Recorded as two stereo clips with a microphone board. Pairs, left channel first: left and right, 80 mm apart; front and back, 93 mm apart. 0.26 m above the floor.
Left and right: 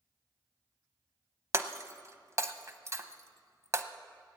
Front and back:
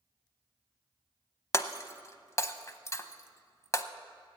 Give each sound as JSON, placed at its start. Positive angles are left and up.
{"t": 1.5, "sound": "breaking glass", "azimuth_deg": -45, "distance_m": 0.7}